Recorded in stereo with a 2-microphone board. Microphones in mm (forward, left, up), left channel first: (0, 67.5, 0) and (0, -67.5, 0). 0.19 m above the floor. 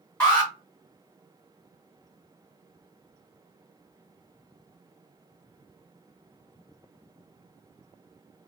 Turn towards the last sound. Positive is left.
turn(degrees=15)  # may be behind; listen again after turning